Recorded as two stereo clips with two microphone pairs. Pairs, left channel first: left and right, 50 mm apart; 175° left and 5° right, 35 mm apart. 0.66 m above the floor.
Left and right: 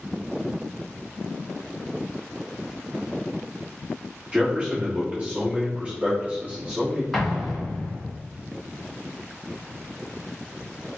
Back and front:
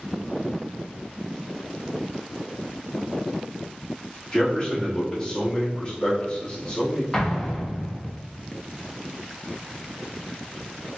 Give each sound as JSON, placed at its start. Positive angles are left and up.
{"t": 4.3, "sound": "a man speaking", "azimuth_deg": -135, "distance_m": 1.4}
{"t": 7.1, "sound": "an explosion", "azimuth_deg": 165, "distance_m": 0.8}